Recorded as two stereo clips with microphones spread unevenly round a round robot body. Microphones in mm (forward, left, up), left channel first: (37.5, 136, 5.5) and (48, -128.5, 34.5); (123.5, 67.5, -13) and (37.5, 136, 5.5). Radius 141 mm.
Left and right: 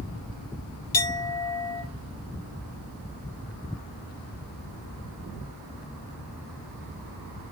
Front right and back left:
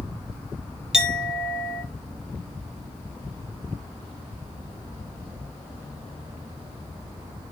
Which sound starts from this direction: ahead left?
A clink, at 0.9 s.